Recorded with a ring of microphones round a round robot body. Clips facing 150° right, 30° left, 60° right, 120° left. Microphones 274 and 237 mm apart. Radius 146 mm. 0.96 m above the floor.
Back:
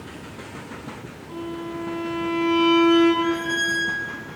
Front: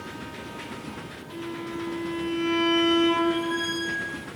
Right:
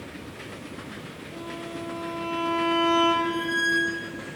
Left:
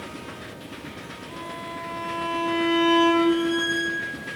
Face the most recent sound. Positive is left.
turn(degrees=-85)